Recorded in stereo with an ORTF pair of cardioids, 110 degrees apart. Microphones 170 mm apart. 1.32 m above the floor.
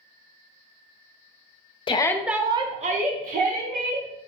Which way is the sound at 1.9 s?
30° left.